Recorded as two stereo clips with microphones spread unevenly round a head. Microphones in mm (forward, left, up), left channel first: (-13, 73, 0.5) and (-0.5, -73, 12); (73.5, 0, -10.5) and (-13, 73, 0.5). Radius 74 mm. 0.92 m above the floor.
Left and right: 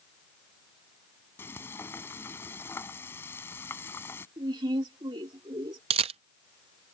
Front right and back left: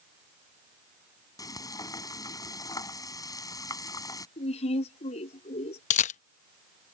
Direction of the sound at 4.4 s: 20° right.